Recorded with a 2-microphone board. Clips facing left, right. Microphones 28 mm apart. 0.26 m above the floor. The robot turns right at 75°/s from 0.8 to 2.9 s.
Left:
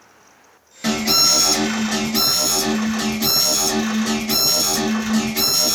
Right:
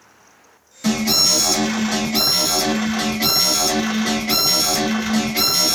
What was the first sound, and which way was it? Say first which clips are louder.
An alarm: even; 20° left (ahead or behind).